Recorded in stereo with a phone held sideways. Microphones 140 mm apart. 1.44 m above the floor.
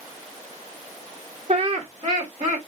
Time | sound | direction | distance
1.5 | laughter | 50° right (ahead or behind) | 1.6 m